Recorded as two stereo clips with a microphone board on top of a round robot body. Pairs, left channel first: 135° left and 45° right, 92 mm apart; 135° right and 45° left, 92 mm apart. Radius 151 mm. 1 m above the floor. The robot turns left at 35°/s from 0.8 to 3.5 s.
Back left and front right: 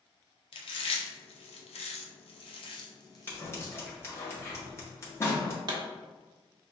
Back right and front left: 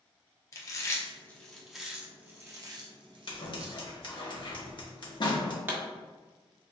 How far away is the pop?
About 1.3 m.